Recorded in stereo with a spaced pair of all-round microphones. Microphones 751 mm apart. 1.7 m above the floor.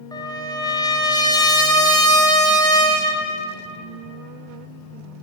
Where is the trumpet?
5° left (ahead or behind), 0.7 m.